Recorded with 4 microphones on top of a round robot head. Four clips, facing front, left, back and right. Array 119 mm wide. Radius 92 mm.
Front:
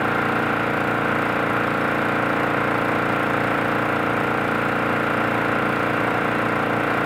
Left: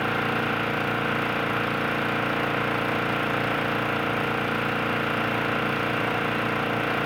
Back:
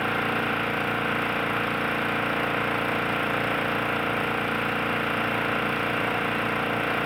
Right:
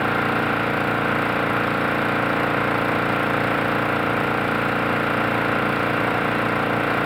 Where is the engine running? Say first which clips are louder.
Right 4 dB, front 5 dB; 40° right, 0.8 m.